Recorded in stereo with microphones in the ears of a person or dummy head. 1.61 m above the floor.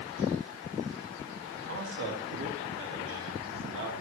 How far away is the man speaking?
About 3 m.